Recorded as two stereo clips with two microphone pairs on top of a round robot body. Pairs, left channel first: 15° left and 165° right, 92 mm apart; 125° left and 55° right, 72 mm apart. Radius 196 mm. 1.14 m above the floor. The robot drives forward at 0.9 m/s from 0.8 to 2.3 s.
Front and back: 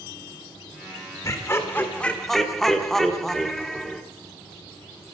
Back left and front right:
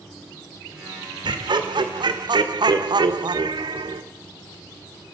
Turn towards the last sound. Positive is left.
turn(degrees=-70)